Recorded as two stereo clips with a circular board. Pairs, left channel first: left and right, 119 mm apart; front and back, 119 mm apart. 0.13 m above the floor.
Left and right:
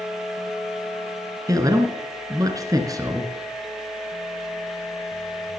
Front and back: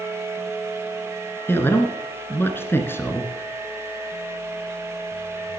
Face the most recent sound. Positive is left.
turn(degrees=-55)